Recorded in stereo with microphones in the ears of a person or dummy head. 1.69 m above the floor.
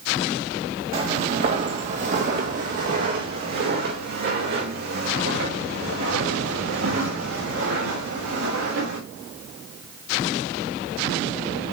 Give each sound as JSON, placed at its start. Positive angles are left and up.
{"t": 0.9, "sound": "footsteps", "side_deg": -40, "distance_m": 3.5}